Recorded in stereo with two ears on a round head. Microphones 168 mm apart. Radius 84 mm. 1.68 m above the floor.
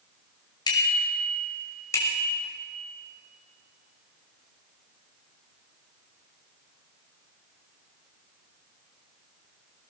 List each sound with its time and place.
0.7 s a bicycle bell: 25° left (ahead or behind), 5.5 m; by 2.5 s 15° left (ahead or behind), 6 m